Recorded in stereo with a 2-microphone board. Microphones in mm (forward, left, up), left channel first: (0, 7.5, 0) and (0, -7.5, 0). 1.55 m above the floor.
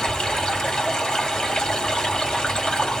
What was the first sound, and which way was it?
Running water, 75° left (ahead or behind).